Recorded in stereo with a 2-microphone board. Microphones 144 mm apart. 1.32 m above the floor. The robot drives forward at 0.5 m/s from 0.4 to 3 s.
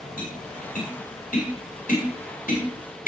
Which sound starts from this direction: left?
Tapping, at 0.2 s.